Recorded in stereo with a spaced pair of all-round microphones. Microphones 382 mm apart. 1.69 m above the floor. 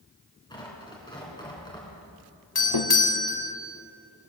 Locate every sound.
0.5 s tearing paper: 10° left (ahead or behind), 3.5 m
2.5 s a doorbell: 70° left (ahead or behind), 1.0 m